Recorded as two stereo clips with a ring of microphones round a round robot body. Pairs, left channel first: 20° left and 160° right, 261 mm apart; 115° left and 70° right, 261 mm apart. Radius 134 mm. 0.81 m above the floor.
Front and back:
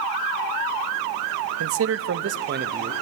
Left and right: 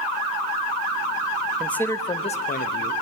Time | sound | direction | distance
1.6 | a man speaking | 160° right | 1.0 m